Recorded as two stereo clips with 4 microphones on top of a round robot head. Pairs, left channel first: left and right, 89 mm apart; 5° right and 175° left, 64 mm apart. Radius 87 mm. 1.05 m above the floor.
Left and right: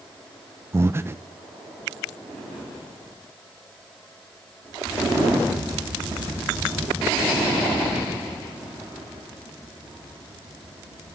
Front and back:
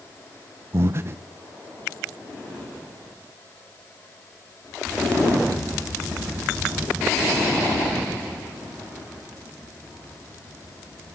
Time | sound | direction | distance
0.7 | breathing | 145° right | 0.7 m